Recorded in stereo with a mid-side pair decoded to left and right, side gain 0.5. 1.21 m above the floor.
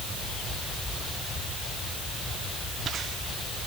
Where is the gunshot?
No gunshot in this recording.